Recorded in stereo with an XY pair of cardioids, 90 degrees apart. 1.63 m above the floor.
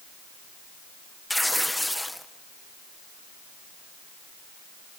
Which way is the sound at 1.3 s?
5° left.